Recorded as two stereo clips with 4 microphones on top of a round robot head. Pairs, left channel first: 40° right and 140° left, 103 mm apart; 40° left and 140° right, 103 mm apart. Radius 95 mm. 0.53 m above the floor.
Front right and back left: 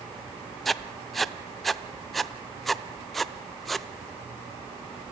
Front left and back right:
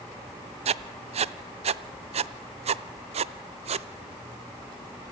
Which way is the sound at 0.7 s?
125° right.